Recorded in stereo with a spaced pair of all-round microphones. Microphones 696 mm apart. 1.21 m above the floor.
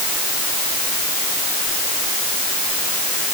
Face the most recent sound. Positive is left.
No sound to turn to.